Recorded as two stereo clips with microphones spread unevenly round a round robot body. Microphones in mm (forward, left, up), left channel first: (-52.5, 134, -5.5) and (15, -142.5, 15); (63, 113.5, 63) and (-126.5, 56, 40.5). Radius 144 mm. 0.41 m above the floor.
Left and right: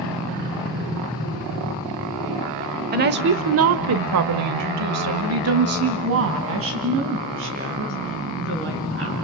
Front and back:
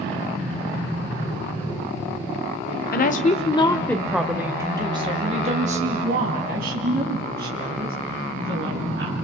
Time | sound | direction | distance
2.9 | a woman speaking | 20° right | 1.6 m